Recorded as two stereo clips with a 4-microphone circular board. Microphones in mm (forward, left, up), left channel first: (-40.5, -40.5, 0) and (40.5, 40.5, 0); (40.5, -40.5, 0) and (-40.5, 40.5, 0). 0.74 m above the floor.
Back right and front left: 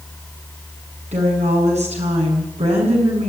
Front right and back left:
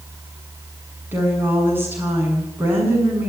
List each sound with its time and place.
1.1 s a woman speaking: 60° left, 8 m